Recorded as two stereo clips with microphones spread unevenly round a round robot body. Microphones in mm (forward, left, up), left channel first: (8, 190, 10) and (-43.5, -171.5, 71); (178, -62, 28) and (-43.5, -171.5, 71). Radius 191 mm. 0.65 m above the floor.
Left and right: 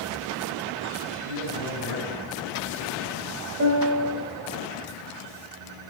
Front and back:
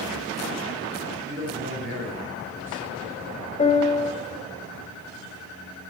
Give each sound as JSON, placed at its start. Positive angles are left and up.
{"t": 1.2, "sound": "a man speaking", "azimuth_deg": -110, "distance_m": 4.0}
{"t": 3.6, "sound": "a piano", "azimuth_deg": -40, "distance_m": 1.3}